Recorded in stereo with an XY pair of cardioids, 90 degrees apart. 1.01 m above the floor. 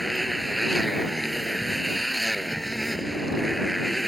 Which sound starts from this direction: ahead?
A motorcycle, at 0.0 s.